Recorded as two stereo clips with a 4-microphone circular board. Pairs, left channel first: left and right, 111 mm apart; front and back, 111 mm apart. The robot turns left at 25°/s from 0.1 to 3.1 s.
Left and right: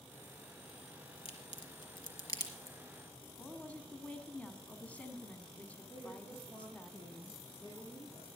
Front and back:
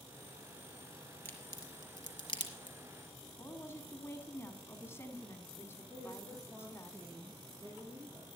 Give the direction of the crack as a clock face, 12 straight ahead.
10 o'clock.